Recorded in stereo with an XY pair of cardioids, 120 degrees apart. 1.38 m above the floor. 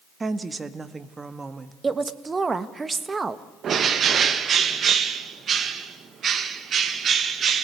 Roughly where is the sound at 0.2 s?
Ahead.